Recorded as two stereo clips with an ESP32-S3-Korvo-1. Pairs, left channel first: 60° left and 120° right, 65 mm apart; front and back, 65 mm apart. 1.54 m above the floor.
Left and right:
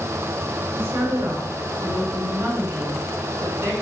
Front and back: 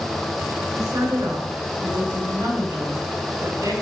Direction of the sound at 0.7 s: 170° right.